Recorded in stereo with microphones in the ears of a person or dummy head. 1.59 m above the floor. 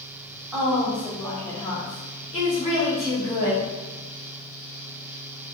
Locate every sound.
0.5 s a woman speaking: 10° right (ahead or behind), 1.1 m; by 3.7 s 45° left (ahead or behind), 2.5 m